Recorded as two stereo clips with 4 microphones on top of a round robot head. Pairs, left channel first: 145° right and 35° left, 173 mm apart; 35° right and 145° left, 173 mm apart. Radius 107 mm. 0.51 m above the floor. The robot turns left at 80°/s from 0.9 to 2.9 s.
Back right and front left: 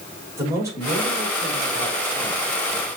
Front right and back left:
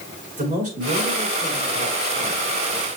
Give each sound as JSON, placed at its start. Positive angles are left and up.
{"t": 0.4, "sound": "a man speaking", "azimuth_deg": 105, "distance_m": 5.0}